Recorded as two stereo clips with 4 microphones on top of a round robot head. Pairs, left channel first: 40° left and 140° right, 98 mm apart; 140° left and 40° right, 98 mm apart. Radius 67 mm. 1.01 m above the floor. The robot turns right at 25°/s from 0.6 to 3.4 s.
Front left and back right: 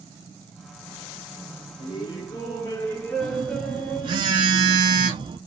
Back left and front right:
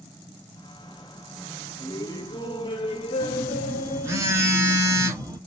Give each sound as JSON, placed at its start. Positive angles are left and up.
{"t": 1.8, "sound": "laughter", "azimuth_deg": 80, "distance_m": 1.5}
{"t": 3.2, "sound": "a phone buzzing", "azimuth_deg": -105, "distance_m": 1.2}